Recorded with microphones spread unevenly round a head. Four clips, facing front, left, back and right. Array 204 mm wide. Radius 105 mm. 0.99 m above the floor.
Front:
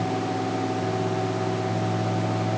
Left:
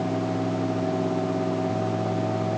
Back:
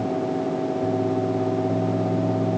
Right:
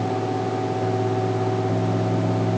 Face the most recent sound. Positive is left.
No sound to turn to.